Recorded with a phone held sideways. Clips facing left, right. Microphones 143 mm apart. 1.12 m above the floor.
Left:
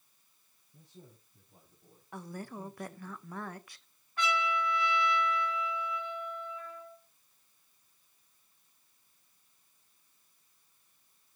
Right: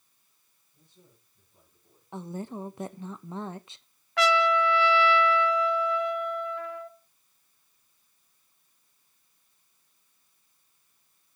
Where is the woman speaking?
20° right (ahead or behind), 0.8 m.